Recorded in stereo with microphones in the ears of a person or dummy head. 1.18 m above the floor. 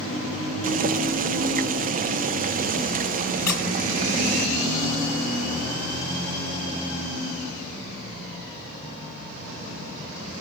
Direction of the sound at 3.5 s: 15° left (ahead or behind).